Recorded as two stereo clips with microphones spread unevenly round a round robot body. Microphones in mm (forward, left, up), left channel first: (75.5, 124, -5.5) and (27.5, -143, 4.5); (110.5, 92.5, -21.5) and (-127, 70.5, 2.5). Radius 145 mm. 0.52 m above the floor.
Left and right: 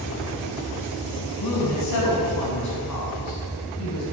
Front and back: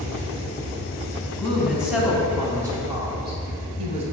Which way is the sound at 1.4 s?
90° left.